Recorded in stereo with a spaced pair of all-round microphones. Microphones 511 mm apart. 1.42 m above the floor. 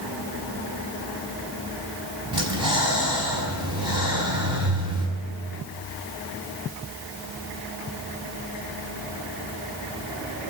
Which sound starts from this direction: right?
Breathing, at 2.3 s.